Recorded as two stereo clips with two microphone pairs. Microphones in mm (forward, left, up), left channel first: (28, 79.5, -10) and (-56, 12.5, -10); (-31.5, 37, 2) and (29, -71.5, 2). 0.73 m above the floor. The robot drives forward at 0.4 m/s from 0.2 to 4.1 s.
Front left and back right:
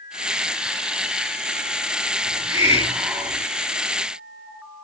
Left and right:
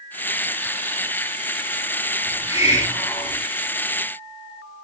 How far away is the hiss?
About 4.5 m.